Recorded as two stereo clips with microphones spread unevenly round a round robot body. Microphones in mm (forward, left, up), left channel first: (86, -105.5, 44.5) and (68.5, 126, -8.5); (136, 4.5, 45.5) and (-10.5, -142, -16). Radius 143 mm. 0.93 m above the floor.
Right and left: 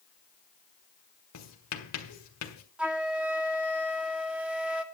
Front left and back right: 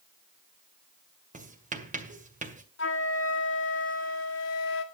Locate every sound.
1.3 s writing: 80° right, 2 m
2.8 s a flute: 15° left, 1.7 m